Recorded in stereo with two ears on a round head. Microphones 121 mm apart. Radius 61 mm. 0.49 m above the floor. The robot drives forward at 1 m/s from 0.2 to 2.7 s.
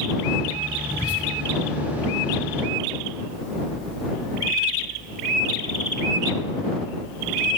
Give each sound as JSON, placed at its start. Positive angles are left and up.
{"t": 0.9, "sound": "whispering", "side_deg": 30, "distance_m": 4.5}